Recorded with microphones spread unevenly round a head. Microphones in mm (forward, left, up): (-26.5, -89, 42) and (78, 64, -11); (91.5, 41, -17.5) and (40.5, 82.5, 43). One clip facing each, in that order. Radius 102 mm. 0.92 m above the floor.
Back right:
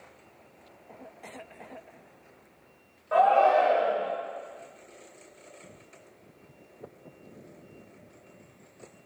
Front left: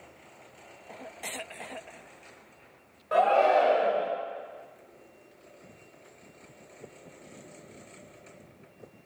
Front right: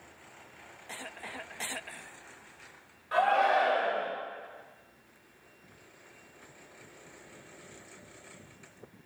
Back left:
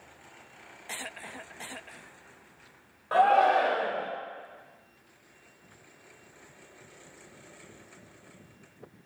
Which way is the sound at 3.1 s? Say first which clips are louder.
Back right 1 dB, back left 4 dB; 105° left.